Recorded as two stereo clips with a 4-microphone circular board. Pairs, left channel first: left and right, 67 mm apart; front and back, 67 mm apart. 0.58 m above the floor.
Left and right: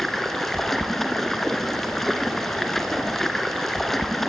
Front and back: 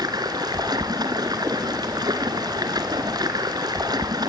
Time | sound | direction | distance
0.0 | running water | 175° left | 2 m